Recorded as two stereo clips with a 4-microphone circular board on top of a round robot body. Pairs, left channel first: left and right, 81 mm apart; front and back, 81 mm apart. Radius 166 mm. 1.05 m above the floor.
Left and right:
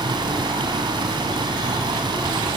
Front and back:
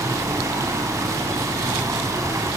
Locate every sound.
0.0 s running water: 125° right, 3.5 m